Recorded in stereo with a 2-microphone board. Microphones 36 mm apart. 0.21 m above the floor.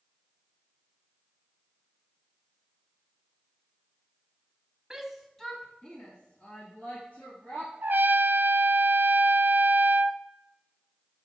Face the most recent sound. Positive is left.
turn(degrees=-60)  # may be behind; listen again after turning